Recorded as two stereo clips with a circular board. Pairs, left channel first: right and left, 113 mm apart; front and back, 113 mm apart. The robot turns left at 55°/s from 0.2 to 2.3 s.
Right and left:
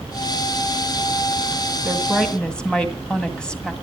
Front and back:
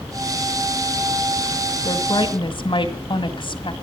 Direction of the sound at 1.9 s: 15° left.